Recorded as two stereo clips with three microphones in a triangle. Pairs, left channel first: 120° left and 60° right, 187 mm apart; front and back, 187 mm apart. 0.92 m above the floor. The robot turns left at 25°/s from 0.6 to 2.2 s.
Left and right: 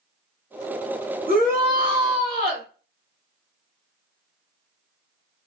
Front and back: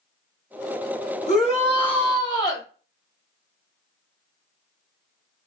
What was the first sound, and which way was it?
A shout, 40° right.